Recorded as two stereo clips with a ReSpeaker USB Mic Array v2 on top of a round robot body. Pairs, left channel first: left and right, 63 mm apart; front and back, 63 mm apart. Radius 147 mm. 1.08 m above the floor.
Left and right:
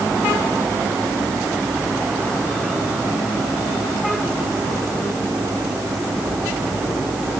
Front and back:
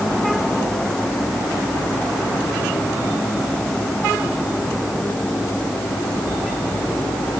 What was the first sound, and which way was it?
Only background noise.